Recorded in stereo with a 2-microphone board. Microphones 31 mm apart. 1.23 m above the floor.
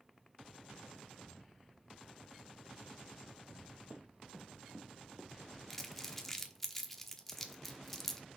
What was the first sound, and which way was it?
Running footsteps, 50° right (ahead or behind).